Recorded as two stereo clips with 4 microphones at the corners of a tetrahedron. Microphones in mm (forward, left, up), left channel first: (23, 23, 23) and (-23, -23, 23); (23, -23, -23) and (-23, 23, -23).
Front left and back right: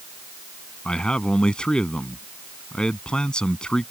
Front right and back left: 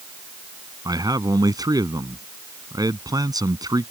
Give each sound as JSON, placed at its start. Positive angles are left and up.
{"t": 0.8, "sound": "a man speaking", "azimuth_deg": 120}